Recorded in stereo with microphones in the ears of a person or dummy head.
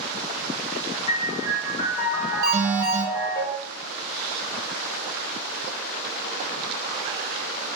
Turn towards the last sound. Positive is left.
turn(degrees=-20)  # may be behind; listen again after turning